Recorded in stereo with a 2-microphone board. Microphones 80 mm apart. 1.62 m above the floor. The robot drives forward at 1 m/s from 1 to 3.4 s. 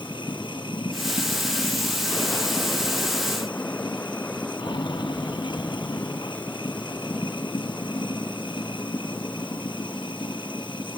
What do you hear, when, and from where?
0.0 s running water: 85° left; by 11.0 s 90° left